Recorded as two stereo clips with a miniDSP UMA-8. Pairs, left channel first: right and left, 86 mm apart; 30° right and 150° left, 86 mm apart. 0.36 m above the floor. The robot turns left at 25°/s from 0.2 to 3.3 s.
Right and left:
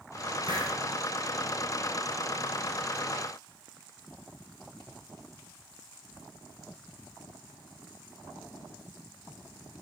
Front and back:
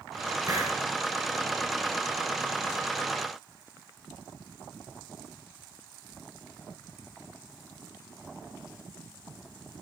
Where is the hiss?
105° left, 3 m; by 0.7 s 100° left, 3 m.